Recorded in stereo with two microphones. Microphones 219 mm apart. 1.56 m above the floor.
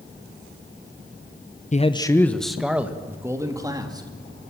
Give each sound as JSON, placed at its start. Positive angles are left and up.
{"t": 1.7, "sound": "a man speaking", "side_deg": 35, "distance_m": 0.9}